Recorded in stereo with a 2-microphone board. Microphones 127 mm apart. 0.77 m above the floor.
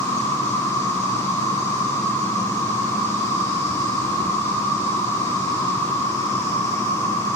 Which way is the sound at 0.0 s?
75° left (ahead or behind).